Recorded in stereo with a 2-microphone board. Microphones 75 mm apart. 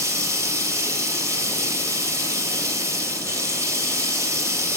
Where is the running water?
40° right (ahead or behind), 2.5 m.